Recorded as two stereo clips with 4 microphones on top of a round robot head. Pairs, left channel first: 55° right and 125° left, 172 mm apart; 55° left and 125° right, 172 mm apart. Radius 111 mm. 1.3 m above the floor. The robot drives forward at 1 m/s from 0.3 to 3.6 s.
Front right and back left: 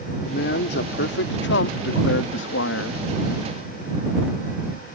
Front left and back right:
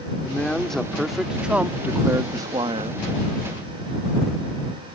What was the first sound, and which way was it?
A man speaking, 25° right.